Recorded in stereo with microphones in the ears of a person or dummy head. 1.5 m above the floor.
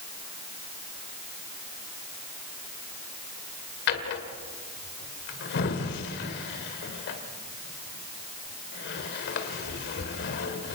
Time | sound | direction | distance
3.9 | a drawer | 60° left (ahead or behind) | 2.0 m